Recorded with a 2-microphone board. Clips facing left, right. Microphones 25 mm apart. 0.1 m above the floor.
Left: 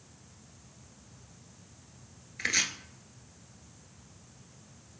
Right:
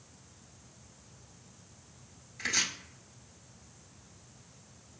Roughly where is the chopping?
Left.